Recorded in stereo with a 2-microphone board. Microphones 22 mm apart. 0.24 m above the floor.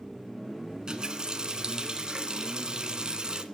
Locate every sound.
0.7 s a running tap: 40° right (ahead or behind), 1.7 m